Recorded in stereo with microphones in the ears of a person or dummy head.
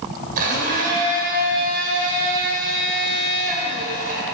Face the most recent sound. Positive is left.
turn(degrees=-50)  # may be behind; listen again after turning